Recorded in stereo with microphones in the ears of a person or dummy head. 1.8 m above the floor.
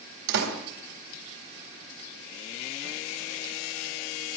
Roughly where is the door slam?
Right.